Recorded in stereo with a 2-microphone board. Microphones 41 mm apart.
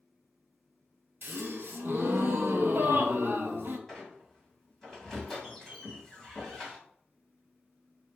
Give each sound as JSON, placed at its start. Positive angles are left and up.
{"t": 1.2, "sound": "a gasp", "side_deg": -70, "distance_m": 0.6}
{"t": 3.9, "sound": "a squeak", "side_deg": 5, "distance_m": 1.9}